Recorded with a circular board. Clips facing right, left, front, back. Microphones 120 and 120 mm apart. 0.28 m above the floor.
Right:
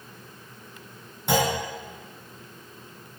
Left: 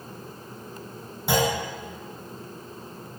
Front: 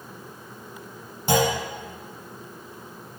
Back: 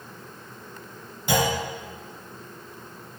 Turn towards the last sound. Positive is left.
turn(degrees=10)